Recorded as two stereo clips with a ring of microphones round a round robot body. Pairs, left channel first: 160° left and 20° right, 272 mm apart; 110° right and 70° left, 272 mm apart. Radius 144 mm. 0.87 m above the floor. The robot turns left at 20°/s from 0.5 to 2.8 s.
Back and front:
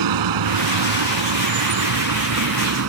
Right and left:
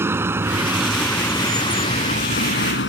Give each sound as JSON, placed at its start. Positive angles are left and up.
{"t": 0.0, "sound": "a vehicle", "azimuth_deg": -15}